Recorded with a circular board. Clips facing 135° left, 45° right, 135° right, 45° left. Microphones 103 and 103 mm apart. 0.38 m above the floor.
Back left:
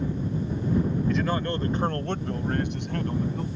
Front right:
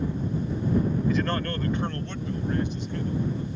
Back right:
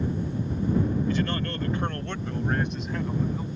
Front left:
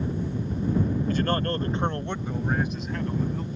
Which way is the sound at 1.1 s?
40° left.